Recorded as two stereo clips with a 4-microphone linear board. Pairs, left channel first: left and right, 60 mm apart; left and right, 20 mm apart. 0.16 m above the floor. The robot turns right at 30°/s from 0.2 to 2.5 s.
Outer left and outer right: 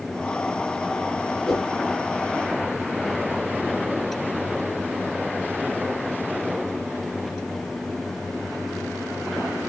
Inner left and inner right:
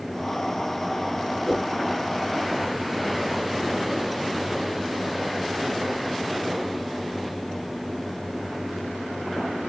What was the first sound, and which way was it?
A whoosh, 10° left (ahead or behind).